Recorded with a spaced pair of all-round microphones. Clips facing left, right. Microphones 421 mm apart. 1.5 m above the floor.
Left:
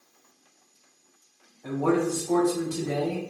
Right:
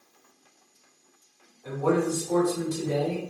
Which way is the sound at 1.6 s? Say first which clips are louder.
Left 1 dB; 85° left.